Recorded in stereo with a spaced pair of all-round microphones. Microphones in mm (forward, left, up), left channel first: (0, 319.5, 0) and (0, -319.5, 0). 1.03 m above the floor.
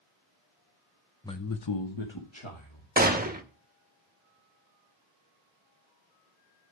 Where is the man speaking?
5° left (ahead or behind), 0.6 m; by 2.9 s 40° left (ahead or behind), 2.5 m.